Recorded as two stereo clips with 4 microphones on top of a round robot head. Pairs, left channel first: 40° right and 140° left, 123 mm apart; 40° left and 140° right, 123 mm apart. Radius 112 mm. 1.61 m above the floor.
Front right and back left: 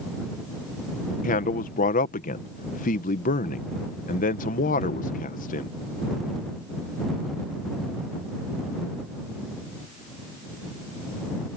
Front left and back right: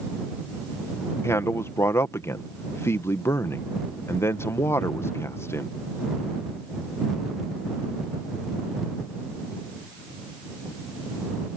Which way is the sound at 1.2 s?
30° right.